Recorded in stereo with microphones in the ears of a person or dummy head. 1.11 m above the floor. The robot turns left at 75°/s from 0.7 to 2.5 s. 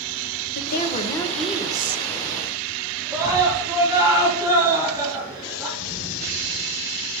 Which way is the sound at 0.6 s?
55° left.